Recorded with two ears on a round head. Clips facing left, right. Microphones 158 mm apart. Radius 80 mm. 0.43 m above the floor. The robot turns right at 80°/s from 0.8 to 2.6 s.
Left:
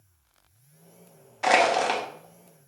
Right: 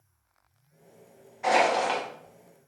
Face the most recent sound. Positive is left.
turn(degrees=-175)